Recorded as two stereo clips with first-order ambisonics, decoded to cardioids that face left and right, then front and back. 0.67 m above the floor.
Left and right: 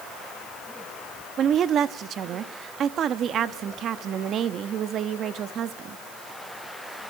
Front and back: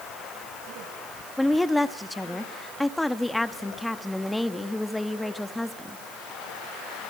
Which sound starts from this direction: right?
A woman speaking, at 1.4 s.